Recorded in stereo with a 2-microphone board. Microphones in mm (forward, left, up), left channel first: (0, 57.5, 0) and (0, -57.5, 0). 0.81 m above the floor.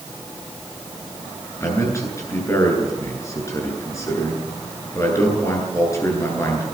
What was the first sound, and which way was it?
A man speaking, 25° left (ahead or behind).